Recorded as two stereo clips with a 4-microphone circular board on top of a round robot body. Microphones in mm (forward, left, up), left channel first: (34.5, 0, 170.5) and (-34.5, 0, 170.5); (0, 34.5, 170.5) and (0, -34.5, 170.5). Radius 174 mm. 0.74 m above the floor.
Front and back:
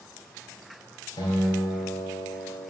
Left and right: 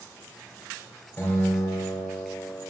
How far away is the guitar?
About 3 m.